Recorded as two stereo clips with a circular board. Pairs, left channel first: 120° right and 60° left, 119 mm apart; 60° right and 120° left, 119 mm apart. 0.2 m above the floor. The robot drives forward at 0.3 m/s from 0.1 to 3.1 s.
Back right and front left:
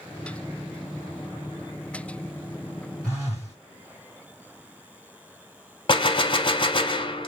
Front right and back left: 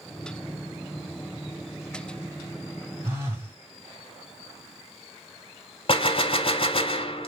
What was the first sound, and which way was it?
A phone buzzing, straight behind.